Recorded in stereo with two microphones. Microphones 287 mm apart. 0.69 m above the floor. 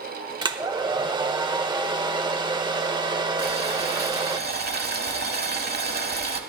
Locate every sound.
0.4 s a hair dryer: 15° right (ahead or behind), 0.8 m
3.4 s boiling: 35° right (ahead or behind), 1.4 m